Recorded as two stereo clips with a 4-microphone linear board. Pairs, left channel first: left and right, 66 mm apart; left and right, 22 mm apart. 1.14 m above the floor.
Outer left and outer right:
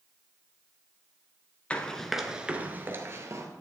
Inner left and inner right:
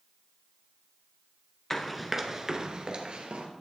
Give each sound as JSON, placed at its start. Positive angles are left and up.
{"t": 1.7, "sound": "running footsteps", "side_deg": 20, "distance_m": 1.1}